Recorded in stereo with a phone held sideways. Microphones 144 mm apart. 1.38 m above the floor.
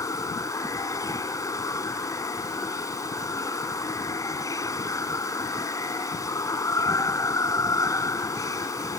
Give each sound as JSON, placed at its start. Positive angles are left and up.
{"t": 0.0, "sound": "running water", "side_deg": 25}